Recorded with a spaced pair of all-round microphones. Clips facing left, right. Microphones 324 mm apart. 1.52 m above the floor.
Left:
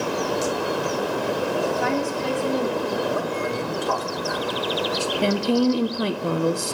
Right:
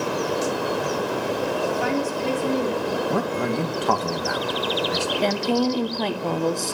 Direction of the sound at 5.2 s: 15° left (ahead or behind).